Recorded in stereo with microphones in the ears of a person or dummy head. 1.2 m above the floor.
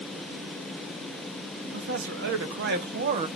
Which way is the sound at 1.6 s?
80° right.